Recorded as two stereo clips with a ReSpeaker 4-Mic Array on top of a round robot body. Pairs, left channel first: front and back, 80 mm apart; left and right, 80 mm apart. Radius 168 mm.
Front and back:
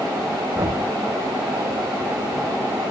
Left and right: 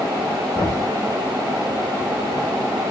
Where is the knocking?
110° left, 4.5 m.